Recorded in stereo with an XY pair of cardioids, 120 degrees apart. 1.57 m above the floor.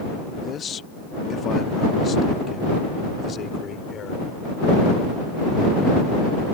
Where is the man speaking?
40° left; by 4.3 s 45° left.